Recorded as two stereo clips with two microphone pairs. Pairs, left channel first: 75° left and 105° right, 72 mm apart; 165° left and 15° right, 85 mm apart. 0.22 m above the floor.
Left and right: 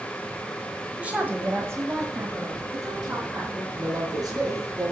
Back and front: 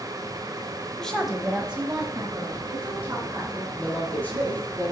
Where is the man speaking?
125° right, 4.5 m.